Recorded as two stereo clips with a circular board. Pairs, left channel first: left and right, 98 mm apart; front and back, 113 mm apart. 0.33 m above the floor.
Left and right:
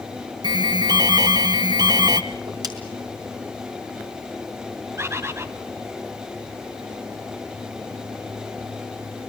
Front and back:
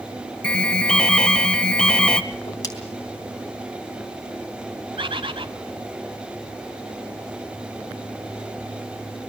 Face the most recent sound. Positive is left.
turn(degrees=-150)